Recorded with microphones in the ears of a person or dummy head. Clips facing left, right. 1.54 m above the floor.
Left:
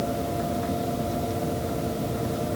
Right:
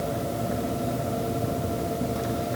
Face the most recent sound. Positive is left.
No sound to turn to.